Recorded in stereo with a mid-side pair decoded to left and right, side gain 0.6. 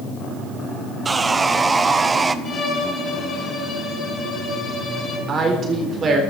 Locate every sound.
1.1 s sawing: 20° right, 0.7 m
2.5 s a violin: 40° left, 7 m
5.3 s a woman speaking: 40° right, 4 m